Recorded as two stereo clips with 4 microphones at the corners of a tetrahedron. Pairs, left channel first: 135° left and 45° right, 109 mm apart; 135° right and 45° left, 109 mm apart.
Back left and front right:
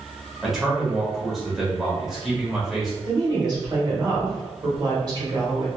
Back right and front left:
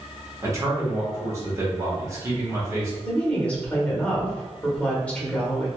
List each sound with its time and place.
0.4 s a man speaking: 40° left, 1.0 m
3.0 s a woman speaking: 60° right, 1.1 m